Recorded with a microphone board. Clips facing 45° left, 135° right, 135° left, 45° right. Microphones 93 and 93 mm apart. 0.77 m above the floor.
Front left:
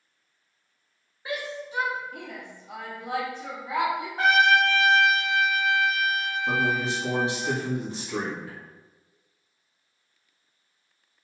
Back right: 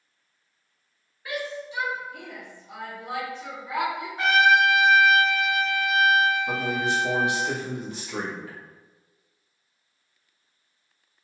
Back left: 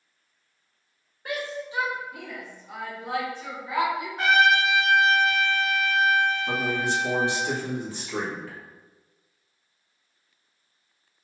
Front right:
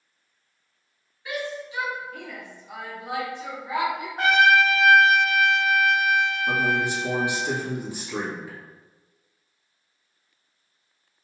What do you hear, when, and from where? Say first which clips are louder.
1.2 s a shout: back right 1 dB, even; 105° left, 0.9 m; by 4.1 s 15° left, 1.5 m
4.2 s a trumpet: back right 1 dB, front right 2 dB; straight ahead, 1.6 m
6.5 s a man speaking: front left 1 dB, front right 2 dB; 20° left, 1.2 m